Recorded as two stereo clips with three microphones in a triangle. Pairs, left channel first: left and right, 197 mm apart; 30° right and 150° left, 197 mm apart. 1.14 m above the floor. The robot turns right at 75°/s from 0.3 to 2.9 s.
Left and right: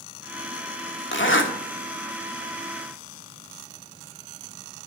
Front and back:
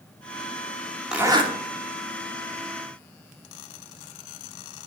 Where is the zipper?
65° left, 1.4 m; by 1.5 s 95° left, 1.4 m.